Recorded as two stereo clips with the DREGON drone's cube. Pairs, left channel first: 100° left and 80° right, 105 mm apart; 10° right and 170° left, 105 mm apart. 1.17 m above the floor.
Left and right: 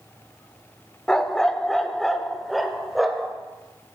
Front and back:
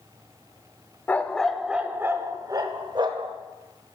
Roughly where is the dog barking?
Ahead left.